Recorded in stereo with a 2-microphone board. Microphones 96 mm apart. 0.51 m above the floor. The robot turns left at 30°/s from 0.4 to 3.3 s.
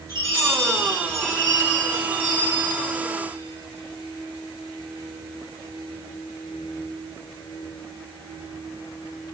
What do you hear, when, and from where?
0.1 s a chime: 35° left, 4 m; by 2.7 s 35° right, 4 m